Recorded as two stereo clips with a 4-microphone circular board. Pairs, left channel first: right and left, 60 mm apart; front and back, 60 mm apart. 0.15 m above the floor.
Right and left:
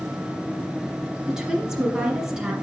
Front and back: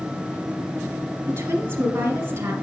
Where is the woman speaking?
170° left, 1.7 m.